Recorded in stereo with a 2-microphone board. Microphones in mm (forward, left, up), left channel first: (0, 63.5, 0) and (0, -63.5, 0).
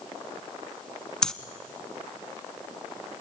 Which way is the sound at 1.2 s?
5° left (ahead or behind).